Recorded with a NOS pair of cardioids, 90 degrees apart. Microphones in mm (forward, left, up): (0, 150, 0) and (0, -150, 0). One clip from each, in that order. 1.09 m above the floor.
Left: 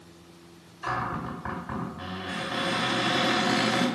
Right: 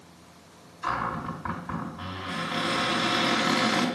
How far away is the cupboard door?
About 3 m.